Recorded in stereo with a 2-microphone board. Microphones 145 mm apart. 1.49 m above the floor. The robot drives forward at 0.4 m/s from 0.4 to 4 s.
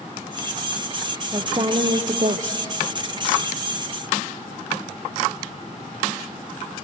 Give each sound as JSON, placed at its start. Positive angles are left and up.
{"t": 1.3, "sound": "a woman speaking", "side_deg": -35, "distance_m": 0.8}